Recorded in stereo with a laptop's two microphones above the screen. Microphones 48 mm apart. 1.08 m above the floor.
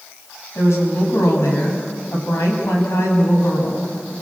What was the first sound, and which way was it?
A woman speaking, 75° left (ahead or behind).